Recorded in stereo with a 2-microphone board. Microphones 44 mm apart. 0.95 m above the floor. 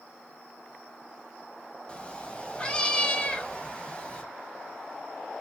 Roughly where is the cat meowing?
Left.